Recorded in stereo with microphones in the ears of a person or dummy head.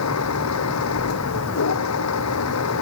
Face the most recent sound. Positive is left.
turn(degrees=90)